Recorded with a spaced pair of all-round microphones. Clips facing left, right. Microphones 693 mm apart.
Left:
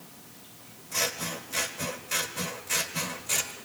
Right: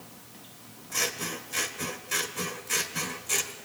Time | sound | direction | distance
0.9 | scissors | 15° left (ahead or behind) | 1.5 m